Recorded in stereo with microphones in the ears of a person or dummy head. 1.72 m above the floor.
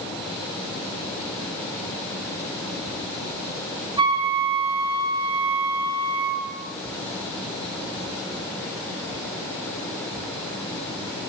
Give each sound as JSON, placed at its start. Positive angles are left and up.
{"t": 4.0, "sound": "a flute", "side_deg": -25, "distance_m": 9.5}